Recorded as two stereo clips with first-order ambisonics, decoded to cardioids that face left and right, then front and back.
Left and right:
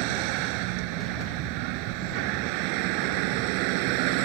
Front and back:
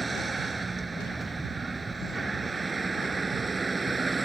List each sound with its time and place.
0.0 s a vehicle: 100° right